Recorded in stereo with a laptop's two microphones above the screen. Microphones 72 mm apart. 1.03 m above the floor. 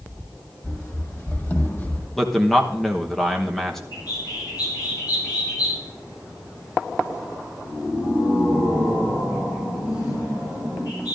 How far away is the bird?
About 3.5 m.